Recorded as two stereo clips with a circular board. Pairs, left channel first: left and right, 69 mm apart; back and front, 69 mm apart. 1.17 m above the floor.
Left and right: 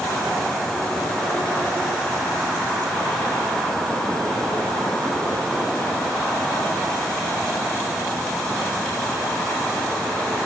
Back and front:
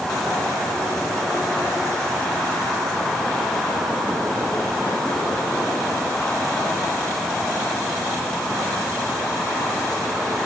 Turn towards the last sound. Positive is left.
No sound to turn to.